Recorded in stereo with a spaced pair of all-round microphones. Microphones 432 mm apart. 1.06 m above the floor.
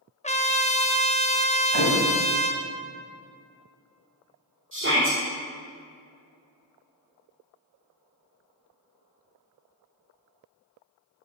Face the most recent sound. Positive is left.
turn(degrees=-30)  # may be behind; listen again after turning